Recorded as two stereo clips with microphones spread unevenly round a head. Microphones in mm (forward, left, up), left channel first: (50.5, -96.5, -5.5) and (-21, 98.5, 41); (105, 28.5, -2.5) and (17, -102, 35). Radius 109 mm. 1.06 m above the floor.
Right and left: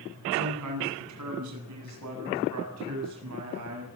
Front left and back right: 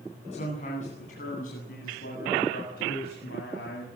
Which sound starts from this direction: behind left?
A man speaking, at 0.3 s.